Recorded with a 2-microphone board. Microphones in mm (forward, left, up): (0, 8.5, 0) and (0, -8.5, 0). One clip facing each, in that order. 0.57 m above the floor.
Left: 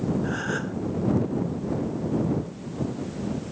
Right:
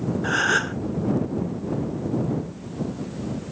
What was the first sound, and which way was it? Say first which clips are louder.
A gasp: right 7 dB; 50° right (ahead or behind).